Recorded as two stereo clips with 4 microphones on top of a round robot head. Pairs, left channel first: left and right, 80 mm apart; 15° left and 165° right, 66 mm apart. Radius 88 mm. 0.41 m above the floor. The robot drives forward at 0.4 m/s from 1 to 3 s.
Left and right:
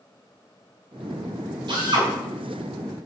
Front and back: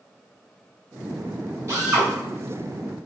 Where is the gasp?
I don't hear a gasp.